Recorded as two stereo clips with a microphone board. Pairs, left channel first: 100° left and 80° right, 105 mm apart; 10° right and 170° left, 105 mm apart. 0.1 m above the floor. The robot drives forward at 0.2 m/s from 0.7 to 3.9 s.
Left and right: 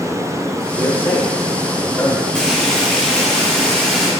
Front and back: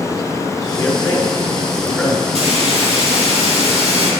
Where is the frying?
Straight behind, 2.5 m.